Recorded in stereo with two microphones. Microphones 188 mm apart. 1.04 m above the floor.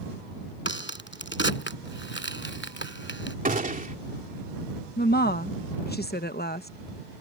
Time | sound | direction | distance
0.7 | a crack | 85° left | ?
3.5 | a gunshot | 45° right (ahead or behind) | ?
5.0 | a woman speaking | 60° left (ahead or behind) | ?